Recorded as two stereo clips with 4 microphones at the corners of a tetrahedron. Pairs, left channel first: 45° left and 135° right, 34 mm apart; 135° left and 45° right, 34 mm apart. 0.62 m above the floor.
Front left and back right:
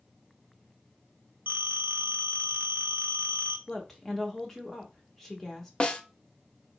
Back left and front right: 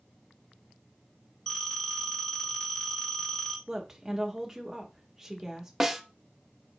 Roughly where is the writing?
No writing in this recording.